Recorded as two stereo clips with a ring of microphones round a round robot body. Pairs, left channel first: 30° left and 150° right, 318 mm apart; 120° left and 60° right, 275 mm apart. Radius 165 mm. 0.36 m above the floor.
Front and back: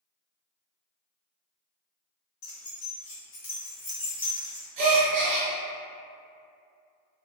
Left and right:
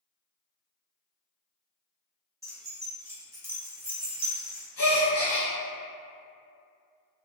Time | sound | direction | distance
2.4 | keys jangling | 20° left | 1.3 m
4.8 | a gasp | 175° right | 1.3 m